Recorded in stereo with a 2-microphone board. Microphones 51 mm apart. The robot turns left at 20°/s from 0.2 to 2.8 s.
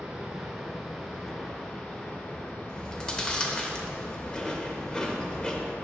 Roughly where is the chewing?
Centre.